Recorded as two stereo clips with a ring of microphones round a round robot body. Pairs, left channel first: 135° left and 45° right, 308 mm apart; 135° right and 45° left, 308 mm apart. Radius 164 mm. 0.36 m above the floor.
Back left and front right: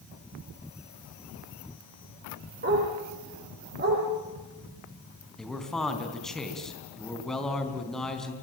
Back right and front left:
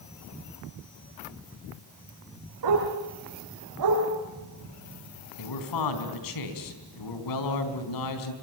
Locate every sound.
2.6 s a dog barking: 15° left, 8 m
5.4 s a man speaking: 135° right, 4 m